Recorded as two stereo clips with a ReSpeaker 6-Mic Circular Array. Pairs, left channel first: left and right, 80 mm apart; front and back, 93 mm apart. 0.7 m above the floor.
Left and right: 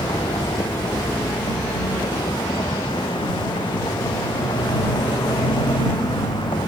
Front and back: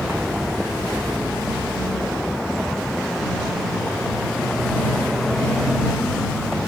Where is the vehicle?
90° left; by 6.7 s 85° left.